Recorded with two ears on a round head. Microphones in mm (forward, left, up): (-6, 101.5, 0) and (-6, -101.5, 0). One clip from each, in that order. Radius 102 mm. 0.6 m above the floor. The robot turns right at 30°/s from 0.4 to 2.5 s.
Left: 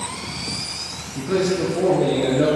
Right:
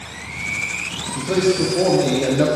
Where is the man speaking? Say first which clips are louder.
Right 2 dB; 155° right, 0.8 m; by 2.5 s 115° right, 0.8 m.